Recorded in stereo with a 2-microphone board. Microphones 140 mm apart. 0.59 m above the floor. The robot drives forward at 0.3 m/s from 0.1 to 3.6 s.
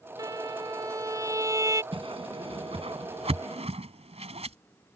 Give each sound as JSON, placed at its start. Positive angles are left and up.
{"t": 0.2, "sound": "a violin", "side_deg": -25}
{"t": 1.9, "sound": "a whoosh", "side_deg": -40}